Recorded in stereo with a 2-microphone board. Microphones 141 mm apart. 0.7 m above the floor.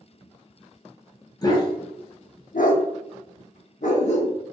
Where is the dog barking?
25° left (ahead or behind), 0.9 m; by 4.3 s 50° left (ahead or behind), 1.0 m.